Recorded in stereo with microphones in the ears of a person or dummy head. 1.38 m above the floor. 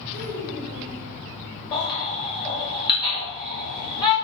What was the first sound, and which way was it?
A child speaking, 85° left.